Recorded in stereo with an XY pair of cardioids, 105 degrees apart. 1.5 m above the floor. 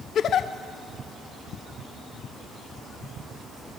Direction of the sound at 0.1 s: 60° left.